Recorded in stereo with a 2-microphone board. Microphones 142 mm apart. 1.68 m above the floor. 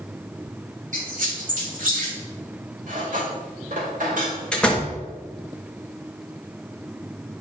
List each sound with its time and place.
0.9 s a squeak: 65° right (ahead or behind), 3 m
2.9 s cutlery clinking: 70° right (ahead or behind), 3.5 m
4.5 s a door slam: 5° left (ahead or behind), 1.5 m